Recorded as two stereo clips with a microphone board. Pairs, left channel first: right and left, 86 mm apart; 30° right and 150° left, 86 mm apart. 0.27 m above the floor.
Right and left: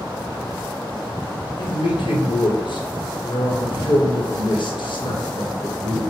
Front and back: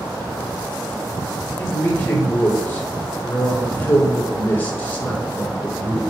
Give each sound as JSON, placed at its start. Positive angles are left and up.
{"t": 1.6, "sound": "a man speaking", "azimuth_deg": -95, "distance_m": 2.5}